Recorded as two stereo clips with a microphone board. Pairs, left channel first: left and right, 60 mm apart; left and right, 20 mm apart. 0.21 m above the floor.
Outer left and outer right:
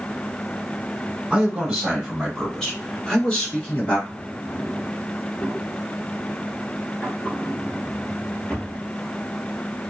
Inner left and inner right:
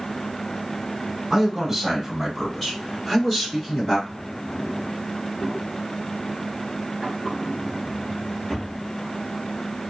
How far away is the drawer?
About 1.5 m.